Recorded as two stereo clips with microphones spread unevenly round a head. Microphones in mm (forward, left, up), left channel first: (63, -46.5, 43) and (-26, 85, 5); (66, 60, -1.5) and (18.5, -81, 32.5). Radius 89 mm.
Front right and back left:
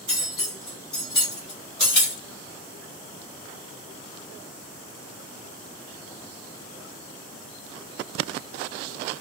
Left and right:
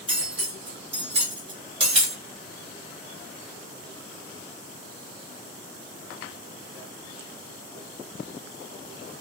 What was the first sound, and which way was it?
Cutlery clinking, 100° right.